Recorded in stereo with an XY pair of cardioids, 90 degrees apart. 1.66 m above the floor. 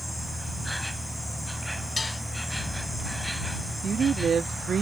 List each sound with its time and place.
0.0 s an insect: 10° left
2.0 s dishes clattering: 35° left
3.8 s a woman speaking: 45° right